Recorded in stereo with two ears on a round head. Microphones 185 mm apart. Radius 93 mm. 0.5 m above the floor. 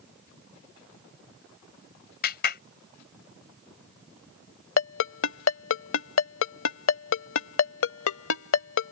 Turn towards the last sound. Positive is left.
turn(degrees=70)  # may be behind; listen again after turning